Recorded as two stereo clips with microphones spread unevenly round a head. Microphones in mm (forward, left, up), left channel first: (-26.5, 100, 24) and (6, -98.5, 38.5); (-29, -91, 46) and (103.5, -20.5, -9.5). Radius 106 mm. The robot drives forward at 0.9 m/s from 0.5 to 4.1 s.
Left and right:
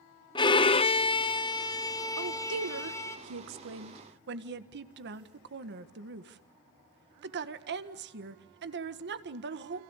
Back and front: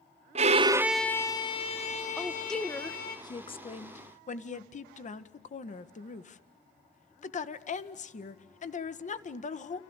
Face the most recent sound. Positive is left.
turn(degrees=-115)